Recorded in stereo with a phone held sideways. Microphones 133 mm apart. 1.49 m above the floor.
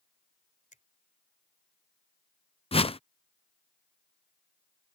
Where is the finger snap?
70° left (ahead or behind).